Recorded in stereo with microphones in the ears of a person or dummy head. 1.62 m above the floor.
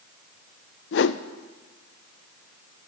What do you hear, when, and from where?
0.9 s a whoosh: 65° left (ahead or behind), 0.6 m